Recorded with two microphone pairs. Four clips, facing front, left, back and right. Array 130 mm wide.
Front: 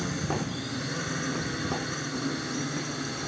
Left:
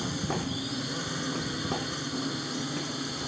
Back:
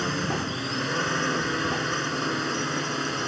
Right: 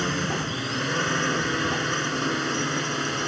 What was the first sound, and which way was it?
A drone, 130° right.